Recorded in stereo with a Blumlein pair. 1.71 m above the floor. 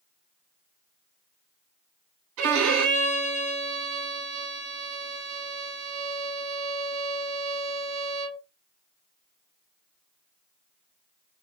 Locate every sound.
2.4 s a violin: 40° right, 0.7 m